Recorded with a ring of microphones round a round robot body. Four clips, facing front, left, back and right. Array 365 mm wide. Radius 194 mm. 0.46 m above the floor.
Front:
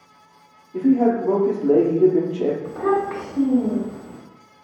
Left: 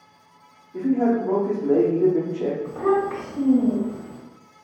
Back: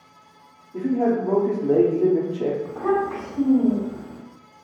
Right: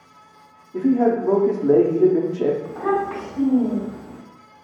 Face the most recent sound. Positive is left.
turn(degrees=45)